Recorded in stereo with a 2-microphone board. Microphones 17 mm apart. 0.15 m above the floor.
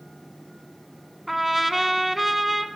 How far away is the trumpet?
About 1.0 m.